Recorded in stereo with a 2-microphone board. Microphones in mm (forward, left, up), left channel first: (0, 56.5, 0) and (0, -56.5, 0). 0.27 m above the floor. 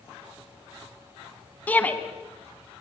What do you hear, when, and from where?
1.7 s a shout: 15° left (ahead or behind), 2.5 m